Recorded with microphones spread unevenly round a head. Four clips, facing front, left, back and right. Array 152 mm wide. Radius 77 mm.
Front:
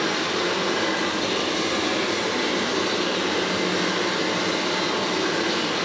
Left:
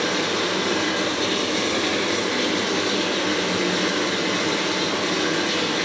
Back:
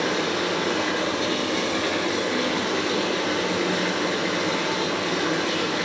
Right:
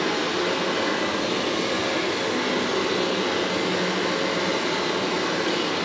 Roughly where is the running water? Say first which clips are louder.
Left 1 dB, even; left.